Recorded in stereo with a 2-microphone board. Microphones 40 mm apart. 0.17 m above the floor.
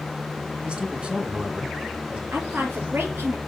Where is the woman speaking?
70° right (ahead or behind), 4.5 m.